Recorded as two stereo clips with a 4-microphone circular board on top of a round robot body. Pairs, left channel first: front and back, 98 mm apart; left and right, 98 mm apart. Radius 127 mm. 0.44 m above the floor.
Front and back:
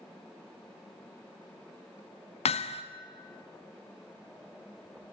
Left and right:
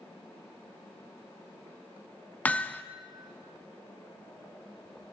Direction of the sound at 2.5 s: 15° left.